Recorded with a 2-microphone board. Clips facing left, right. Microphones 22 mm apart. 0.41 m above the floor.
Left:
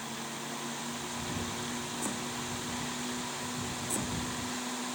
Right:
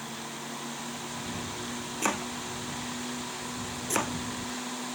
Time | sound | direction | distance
2.0 | chopping | 70° right (ahead or behind) | ?